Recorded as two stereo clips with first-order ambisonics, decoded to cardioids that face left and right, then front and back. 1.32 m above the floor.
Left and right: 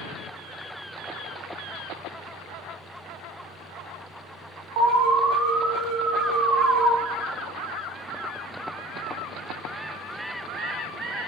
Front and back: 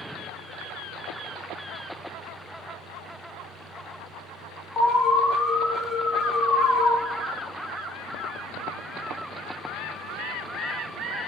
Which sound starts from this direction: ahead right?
An alarm, at 4.8 s.